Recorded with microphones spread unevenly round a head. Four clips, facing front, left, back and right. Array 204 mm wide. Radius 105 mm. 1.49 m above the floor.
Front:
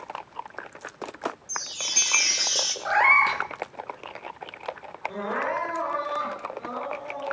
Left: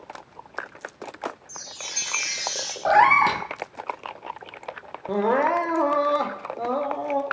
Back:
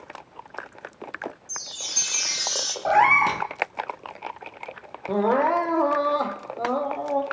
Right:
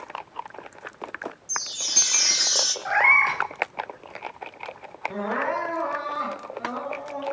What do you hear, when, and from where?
1.5 s a chime: 70° right, 3 m
2.9 s a cat meowing: 125° left, 1.5 m
5.1 s crying: 135° left, 3 m